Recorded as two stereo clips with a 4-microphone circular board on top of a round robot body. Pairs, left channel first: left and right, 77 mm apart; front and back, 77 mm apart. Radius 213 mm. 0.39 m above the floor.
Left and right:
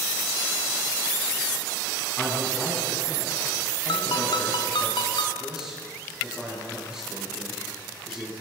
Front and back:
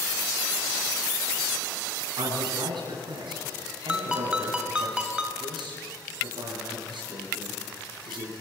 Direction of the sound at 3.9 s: 100° left.